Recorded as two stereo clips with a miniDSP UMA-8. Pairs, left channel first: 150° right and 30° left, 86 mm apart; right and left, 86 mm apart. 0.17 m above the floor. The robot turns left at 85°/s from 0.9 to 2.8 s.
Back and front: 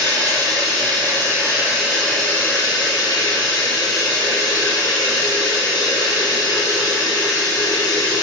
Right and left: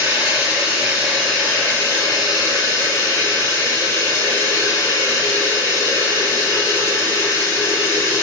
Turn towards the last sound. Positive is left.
turn(degrees=-140)